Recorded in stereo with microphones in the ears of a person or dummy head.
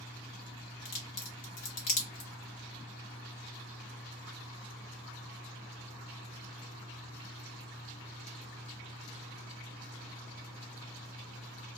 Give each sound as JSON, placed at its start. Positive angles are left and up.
{"t": 0.8, "sound": "a crack", "side_deg": 45, "distance_m": 0.9}